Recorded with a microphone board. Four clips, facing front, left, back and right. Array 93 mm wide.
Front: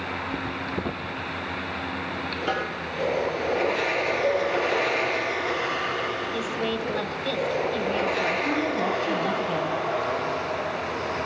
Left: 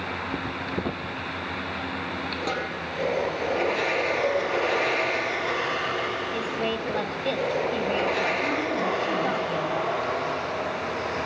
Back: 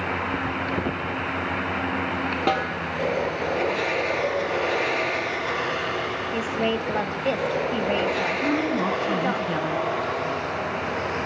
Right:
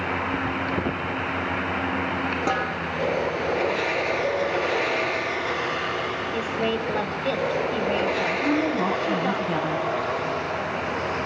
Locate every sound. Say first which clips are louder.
2.5 s a snare drum: right 4 dB, back 4 dB; 160° right, 2.5 m
4.2 s dishes clattering: even, front 2 dB; 130° left, 1.7 m
6.3 s a woman speaking: right 2 dB, back 3 dB; 170° right, 1.3 m
8.4 s a woman speaking: right 3 dB, back 2 dB; 150° right, 4 m